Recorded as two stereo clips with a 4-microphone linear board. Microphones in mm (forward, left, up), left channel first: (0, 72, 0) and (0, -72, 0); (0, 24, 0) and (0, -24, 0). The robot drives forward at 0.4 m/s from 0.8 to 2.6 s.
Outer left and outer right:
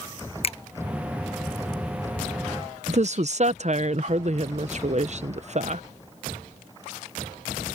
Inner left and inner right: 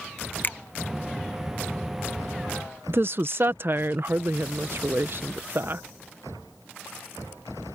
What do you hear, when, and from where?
0.4 s a finger snap: 45° left (ahead or behind)
2.9 s a woman speaking: 50° right (ahead or behind)